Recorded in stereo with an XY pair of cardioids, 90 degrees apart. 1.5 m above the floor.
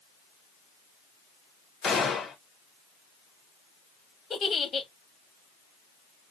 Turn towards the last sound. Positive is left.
turn(degrees=50)